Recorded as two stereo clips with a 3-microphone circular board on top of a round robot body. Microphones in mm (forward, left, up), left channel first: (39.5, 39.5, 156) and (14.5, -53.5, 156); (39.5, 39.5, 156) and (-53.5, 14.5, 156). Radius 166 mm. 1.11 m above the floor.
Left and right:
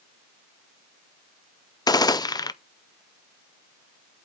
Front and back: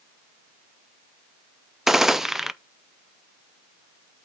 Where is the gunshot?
110° left, 0.6 m.